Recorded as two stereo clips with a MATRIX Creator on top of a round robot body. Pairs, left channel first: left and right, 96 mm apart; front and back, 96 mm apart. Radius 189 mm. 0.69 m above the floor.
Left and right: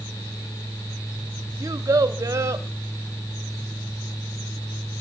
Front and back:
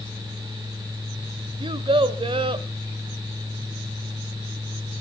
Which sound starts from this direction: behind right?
A child speaking, at 1.6 s.